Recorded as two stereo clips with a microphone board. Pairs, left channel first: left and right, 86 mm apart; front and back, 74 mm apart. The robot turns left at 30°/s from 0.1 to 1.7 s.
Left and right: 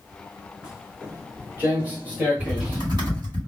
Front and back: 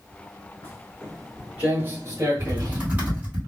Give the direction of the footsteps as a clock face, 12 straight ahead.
12 o'clock.